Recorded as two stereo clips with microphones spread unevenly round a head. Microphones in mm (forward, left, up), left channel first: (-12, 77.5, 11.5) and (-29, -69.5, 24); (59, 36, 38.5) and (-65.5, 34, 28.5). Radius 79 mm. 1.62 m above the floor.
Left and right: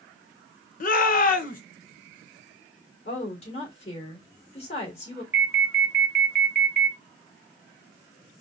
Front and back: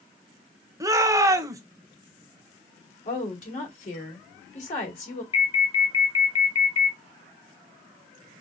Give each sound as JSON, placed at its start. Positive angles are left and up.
{"t": 0.8, "sound": "a shout", "azimuth_deg": 115, "distance_m": 1.0}
{"t": 3.0, "sound": "a woman speaking", "azimuth_deg": 30, "distance_m": 2.5}
{"t": 5.3, "sound": "an alarm", "azimuth_deg": -20, "distance_m": 1.0}